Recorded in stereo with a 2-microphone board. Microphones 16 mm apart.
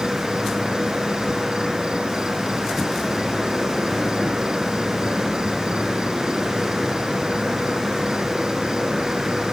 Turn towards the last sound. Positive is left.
turn(degrees=-50)  # may be behind; listen again after turning